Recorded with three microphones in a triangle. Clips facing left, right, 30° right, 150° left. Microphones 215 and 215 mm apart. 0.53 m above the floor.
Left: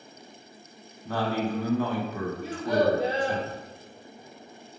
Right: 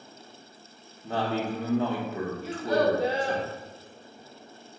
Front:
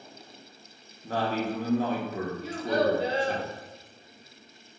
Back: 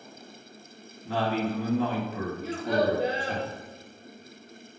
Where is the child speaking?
155° left, 0.8 m.